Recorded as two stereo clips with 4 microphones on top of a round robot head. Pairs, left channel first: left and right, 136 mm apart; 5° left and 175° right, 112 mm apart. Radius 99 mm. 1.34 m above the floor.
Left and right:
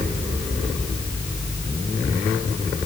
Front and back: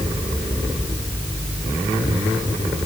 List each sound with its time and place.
Only background noise.